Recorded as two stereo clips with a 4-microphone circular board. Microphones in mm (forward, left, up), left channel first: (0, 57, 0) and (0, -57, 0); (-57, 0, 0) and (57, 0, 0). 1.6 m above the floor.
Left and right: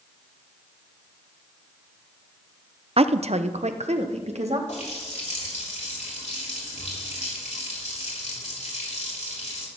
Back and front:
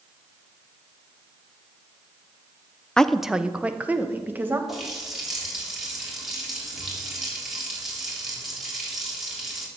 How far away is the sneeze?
No sneeze in this recording.